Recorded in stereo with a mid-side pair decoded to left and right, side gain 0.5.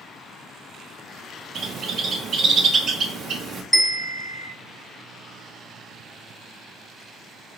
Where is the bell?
5° right, 1.5 m.